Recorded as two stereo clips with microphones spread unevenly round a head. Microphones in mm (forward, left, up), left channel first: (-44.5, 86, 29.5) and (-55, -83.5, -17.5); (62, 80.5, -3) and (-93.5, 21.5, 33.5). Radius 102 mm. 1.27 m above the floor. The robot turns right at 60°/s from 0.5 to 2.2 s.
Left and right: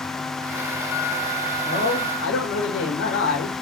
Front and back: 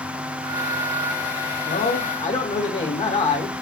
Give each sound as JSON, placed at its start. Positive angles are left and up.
{"t": 1.6, "sound": "a man speaking", "azimuth_deg": 30, "distance_m": 3.0}